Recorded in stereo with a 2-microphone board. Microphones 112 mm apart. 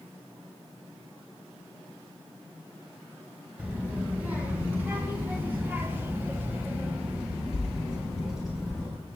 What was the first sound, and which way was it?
A child speaking, 15° right (ahead or behind).